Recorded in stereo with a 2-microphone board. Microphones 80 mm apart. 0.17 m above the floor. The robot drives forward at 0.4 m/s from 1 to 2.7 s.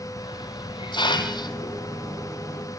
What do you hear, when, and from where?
0.2 s a hiss: 75° left (ahead or behind), 0.9 m; by 2.3 s 50° left (ahead or behind), 1.1 m